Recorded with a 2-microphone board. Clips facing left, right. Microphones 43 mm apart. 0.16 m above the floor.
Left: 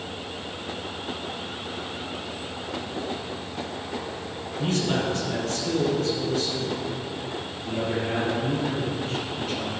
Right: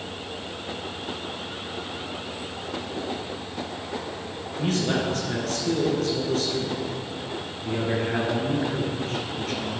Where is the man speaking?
60° right (ahead or behind), 3 m.